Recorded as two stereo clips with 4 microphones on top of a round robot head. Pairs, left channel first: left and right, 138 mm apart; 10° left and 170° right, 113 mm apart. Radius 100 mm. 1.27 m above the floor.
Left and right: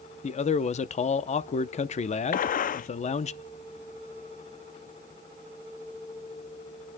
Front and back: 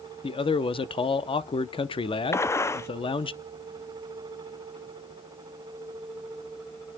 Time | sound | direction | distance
0.2 | a man speaking | 50° left | 0.8 m
2.3 | a gunshot | 75° left | 0.5 m